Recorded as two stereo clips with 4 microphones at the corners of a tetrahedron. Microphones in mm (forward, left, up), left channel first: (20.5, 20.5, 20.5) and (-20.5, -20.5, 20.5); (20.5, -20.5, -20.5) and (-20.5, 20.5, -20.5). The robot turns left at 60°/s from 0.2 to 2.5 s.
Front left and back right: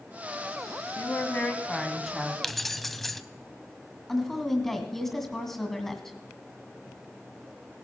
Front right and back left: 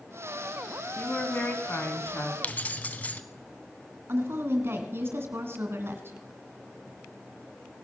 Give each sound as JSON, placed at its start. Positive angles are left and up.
{"t": 1.0, "sound": "a woman speaking", "azimuth_deg": 15, "distance_m": 1.8}
{"t": 2.4, "sound": "keys jangling", "azimuth_deg": -35, "distance_m": 0.7}
{"t": 4.1, "sound": "a woman speaking", "azimuth_deg": 130, "distance_m": 1.8}